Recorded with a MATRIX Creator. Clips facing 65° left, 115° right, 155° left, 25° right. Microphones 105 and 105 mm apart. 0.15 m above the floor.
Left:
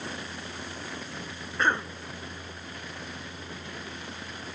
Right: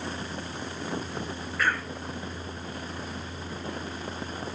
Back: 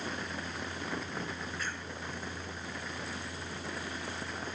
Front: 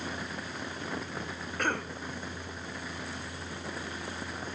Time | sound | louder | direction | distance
1.6 | a cough | left 2 dB, front 8 dB | 5° left | ?